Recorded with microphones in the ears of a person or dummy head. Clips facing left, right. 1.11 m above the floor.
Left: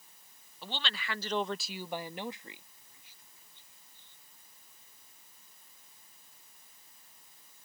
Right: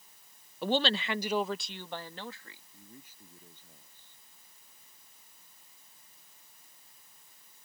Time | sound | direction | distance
0.6 | a woman speaking | 50° right (ahead or behind) | ?
2.7 | a man speaking | 40° right (ahead or behind) | ?